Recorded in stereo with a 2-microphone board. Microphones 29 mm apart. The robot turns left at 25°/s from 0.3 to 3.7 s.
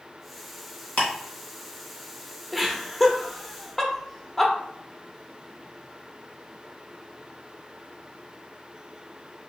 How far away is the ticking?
About 1.5 m.